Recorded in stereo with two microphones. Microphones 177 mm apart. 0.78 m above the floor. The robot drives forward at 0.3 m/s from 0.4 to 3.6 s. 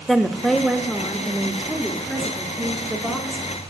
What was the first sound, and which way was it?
A woman speaking, centre (ahead or behind).